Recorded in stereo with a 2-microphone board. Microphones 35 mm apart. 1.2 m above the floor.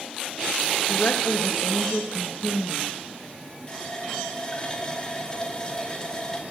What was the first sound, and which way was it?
A woman speaking, 55° left (ahead or behind).